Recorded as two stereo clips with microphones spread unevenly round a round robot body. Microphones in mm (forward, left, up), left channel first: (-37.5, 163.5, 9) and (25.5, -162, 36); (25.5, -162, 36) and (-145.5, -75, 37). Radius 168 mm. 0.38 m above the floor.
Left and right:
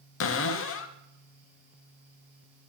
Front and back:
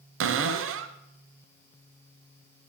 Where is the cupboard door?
155° left, 0.6 m.